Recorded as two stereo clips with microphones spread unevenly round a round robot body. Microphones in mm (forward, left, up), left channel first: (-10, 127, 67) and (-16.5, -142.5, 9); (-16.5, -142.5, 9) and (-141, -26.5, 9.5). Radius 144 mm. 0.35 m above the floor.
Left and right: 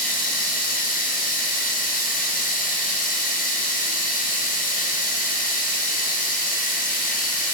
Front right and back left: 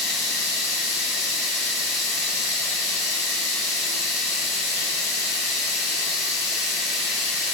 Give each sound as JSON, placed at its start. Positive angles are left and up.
{"t": 0.0, "sound": "running water", "azimuth_deg": 25, "distance_m": 1.2}